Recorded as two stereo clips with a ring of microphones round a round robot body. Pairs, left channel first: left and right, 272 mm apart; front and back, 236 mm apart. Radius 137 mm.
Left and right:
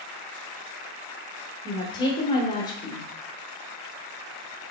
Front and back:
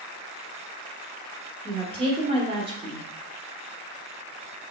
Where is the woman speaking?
145° left, 1.0 m.